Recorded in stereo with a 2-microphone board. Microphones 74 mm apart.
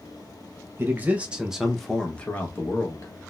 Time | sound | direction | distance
0.8 | a man speaking | 30° right (ahead or behind) | 1.0 m